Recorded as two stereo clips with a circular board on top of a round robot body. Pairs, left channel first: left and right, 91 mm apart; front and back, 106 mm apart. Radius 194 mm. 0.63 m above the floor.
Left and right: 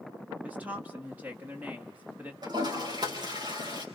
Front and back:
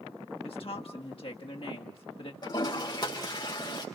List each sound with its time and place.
0.4 s a woman speaking: 20° right, 1.8 m
2.4 s a toilet flushing: 50° right, 5 m